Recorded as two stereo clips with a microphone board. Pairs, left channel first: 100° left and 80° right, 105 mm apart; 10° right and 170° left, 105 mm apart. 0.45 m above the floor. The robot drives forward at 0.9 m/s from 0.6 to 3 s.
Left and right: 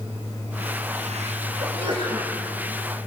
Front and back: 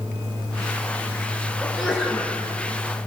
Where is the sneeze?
100° right, 7.5 m; by 2.3 s 105° right, 8 m.